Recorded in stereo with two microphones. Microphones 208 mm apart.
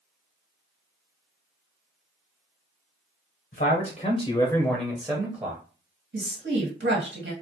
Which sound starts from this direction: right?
A woman speaking, at 6.1 s.